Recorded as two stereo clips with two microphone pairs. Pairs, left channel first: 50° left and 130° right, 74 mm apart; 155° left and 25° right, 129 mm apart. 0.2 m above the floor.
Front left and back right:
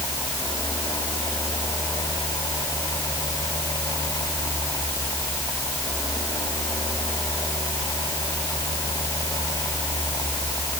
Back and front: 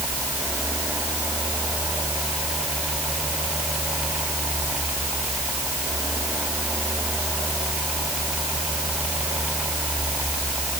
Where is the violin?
I don't hear a violin.